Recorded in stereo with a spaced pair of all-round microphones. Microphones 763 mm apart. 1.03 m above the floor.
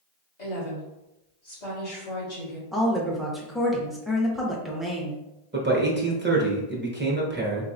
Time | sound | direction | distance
0.4 | a woman speaking | 60° left (ahead or behind) | 2.0 m
2.7 | a woman speaking | centre (ahead or behind) | 1.0 m
5.5 | a man speaking | 15° right (ahead or behind) | 0.9 m